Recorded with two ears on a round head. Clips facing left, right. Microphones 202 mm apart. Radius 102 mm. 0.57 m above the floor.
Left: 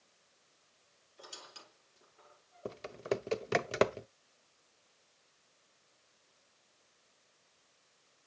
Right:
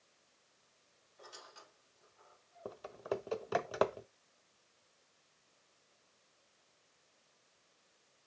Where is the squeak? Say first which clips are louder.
Left 2 dB; 45° left (ahead or behind), 6.5 m.